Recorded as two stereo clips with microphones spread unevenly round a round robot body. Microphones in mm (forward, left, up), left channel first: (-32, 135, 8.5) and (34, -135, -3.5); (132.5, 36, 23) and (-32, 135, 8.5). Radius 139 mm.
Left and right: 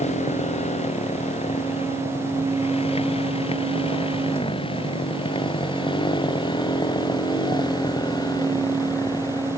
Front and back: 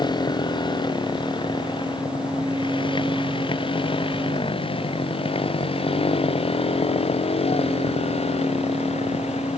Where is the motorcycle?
35° left; by 9.6 s 25° left.